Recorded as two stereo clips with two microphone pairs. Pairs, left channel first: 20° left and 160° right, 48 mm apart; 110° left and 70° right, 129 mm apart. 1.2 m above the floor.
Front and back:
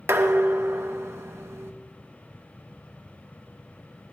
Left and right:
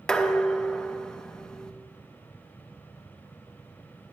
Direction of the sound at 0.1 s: 170° right.